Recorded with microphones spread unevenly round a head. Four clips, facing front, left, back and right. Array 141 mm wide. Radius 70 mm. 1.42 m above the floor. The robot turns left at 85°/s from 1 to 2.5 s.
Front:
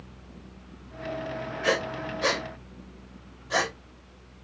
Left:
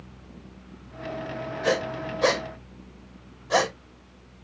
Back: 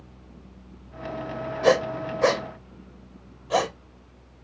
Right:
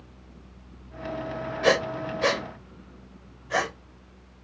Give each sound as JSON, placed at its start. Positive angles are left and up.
{"t": 1.6, "sound": "breathing", "azimuth_deg": -150, "distance_m": 0.6}